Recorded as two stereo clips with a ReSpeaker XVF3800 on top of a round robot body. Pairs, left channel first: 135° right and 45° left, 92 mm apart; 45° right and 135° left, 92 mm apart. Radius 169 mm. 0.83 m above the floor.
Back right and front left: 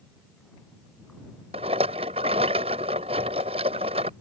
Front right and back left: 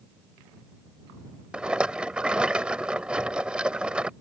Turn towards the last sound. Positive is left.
turn(degrees=55)